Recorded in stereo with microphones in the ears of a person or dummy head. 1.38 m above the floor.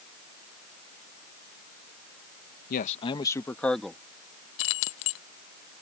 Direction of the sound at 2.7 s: 45° left (ahead or behind).